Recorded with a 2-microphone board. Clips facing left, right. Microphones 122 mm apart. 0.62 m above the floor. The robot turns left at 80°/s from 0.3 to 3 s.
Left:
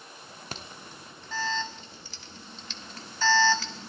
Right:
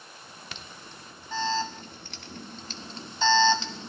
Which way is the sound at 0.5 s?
40° left (ahead or behind).